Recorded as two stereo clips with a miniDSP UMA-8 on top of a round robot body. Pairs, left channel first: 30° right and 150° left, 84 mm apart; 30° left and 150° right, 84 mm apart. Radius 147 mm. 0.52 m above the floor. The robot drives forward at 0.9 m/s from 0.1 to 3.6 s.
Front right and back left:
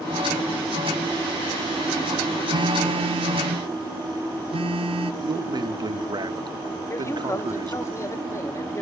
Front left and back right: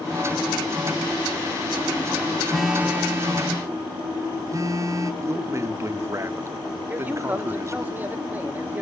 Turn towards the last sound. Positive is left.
turn(degrees=-85)